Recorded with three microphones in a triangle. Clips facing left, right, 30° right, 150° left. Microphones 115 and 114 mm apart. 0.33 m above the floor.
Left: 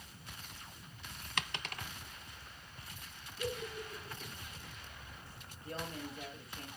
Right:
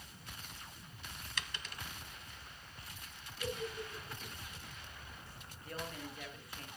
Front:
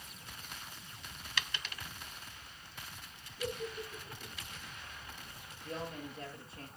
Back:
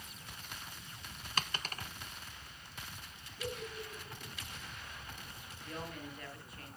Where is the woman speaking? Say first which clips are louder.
Left 2 dB, front 3 dB; 30° left, 6.5 m.